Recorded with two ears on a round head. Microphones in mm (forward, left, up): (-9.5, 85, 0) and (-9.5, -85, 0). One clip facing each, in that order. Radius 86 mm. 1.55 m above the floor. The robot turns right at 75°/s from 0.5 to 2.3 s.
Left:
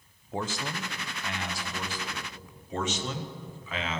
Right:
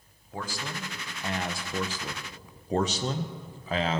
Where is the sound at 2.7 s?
30° right (ahead or behind), 0.6 m.